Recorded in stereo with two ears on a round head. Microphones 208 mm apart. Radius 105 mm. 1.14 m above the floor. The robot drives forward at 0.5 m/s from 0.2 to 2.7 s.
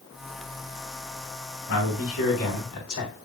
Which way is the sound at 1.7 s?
60° left (ahead or behind).